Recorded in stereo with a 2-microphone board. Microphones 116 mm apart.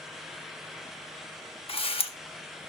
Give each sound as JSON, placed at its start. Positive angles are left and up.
{"t": 1.7, "sound": "a camera shutter", "side_deg": 55, "distance_m": 0.9}